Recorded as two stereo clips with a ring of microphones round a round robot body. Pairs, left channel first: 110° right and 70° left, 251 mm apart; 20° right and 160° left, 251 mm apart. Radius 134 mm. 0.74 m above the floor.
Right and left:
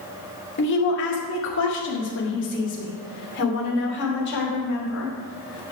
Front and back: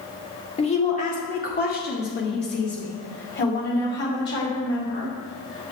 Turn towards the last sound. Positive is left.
turn(degrees=-65)